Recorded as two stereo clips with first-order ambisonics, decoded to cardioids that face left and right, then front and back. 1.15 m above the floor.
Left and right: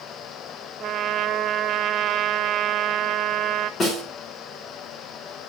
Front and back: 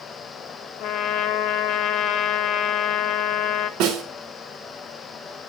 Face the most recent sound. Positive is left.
turn(degrees=150)